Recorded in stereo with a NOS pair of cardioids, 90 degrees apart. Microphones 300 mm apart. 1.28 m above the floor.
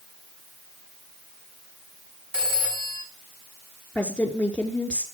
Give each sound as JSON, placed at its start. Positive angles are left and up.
{"t": 2.3, "sound": "a phone ringing", "azimuth_deg": -45, "distance_m": 6.0}
{"t": 4.0, "sound": "a woman speaking", "azimuth_deg": 5, "distance_m": 4.0}